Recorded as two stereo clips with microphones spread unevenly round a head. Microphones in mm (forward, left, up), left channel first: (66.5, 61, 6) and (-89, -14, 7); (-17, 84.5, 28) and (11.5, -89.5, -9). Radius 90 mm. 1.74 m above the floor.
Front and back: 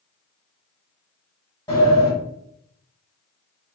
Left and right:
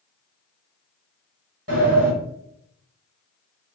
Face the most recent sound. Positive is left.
turn(degrees=-40)